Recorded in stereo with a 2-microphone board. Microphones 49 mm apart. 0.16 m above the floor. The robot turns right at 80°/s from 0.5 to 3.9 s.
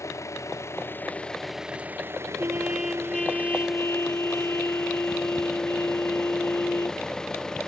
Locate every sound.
0.0 s an engine running: 100° left; by 7.7 s 15° left
2.4 s a trumpet: 45° right; by 7.0 s 75° left